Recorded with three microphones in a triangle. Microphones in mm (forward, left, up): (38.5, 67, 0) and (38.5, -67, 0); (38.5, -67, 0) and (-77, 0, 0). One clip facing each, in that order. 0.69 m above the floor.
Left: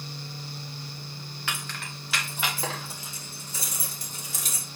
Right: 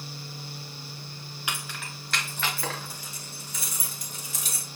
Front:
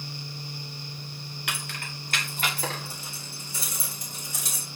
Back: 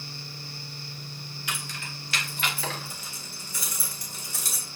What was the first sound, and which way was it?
Keys jangling, 15° right.